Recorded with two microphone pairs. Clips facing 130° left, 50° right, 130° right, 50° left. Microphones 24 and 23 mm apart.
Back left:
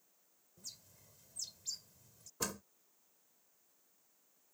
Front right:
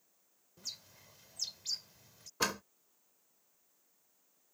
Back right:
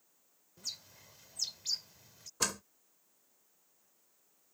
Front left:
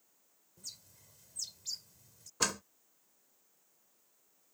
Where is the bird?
80° right.